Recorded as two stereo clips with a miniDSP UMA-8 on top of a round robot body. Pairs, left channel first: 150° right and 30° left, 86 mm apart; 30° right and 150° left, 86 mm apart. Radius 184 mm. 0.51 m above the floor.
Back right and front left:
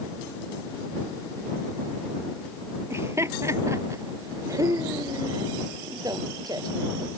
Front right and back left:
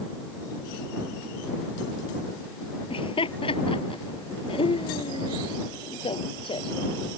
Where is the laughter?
30° right; by 7.1 s 15° right.